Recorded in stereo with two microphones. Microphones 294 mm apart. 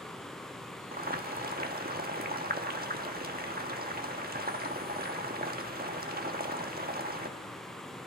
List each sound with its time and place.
0.9 s boiling: 30° right (ahead or behind), 1.2 m